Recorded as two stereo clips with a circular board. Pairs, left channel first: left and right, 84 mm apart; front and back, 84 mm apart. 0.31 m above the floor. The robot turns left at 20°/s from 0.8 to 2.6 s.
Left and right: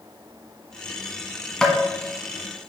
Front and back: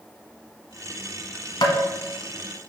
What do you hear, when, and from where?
1.6 s tapping: 10° left, 1.2 m; by 1.8 s 5° left, 1.2 m